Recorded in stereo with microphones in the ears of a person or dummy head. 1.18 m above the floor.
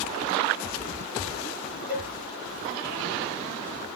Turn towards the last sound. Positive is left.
turn(degrees=35)  # may be behind; listen again after turning